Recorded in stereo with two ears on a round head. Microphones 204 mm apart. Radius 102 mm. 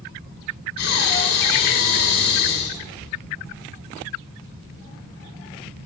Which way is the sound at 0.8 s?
75° left (ahead or behind).